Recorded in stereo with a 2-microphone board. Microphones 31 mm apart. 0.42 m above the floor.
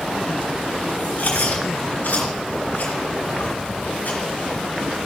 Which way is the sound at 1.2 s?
70° left (ahead or behind).